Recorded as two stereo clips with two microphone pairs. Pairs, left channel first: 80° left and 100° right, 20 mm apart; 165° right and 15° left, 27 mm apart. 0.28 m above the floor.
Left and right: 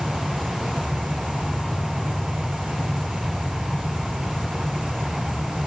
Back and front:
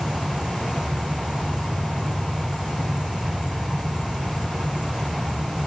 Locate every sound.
0.0 s an insect: 70° left, 1.1 m